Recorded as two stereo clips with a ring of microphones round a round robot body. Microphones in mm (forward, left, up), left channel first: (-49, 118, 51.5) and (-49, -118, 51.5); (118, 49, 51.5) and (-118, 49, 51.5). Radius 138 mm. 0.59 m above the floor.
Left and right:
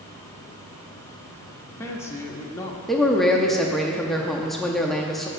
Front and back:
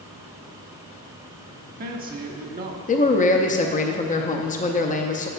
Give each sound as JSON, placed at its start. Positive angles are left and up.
{"t": 1.5, "sound": "a man speaking", "azimuth_deg": 165, "distance_m": 0.8}
{"t": 2.9, "sound": "a man speaking", "azimuth_deg": 0, "distance_m": 0.6}